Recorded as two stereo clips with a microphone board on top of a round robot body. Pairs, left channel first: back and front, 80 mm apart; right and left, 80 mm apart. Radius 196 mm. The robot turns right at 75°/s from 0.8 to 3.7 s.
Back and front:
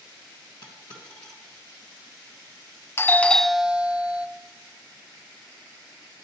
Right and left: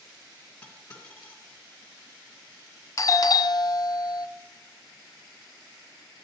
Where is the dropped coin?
155° right, 1.6 m; by 1.4 s 110° right, 1.6 m.